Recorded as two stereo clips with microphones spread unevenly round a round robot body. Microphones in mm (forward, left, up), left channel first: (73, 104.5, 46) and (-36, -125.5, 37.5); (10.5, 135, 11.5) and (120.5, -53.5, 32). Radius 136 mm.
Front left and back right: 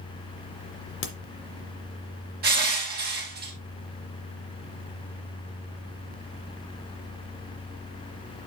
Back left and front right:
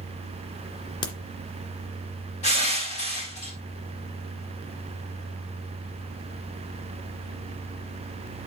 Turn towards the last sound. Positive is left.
turn(degrees=-170)